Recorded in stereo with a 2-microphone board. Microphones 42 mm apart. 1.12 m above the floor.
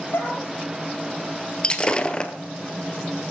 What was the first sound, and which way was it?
A dog barking, 70° left (ahead or behind).